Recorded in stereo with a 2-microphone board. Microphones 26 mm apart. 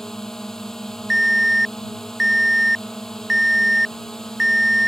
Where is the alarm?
10° right (ahead or behind).